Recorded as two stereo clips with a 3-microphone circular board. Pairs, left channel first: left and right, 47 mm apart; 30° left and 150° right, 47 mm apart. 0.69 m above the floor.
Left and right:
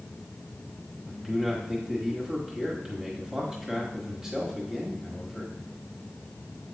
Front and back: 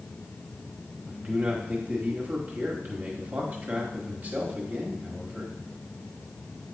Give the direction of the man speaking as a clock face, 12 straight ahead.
5 o'clock.